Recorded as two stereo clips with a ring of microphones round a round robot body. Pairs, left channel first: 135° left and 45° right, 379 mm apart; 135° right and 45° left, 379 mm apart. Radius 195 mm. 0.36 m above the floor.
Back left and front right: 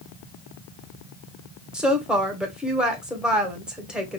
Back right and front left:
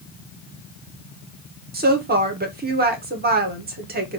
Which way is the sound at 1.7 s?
40° left.